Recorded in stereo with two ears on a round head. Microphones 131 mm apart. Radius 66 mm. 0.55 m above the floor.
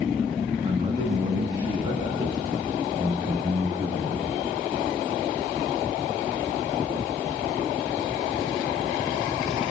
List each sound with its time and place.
0.6 s a man speaking: 35° right (ahead or behind), 5.5 m; by 4.3 s 25° right (ahead or behind), 7.5 m